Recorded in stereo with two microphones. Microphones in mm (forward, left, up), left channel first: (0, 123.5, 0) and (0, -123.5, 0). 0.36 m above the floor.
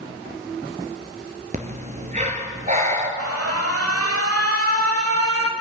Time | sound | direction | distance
1.5 | breathing | 30° right (ahead or behind) | 1.4 m
3.2 | an alarm | 65° right (ahead or behind) | 1.1 m